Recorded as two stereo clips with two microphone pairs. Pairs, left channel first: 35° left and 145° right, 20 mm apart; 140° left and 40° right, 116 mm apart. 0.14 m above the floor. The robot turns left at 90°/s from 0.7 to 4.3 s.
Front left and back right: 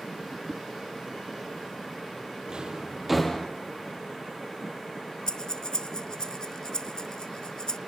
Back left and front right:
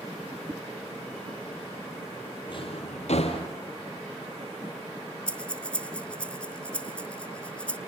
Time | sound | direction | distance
0.5 | a whoosh | 95° right | 1.1 m
2.5 | a drawer | 175° right | 3 m
5.3 | breathing | 60° left | 0.6 m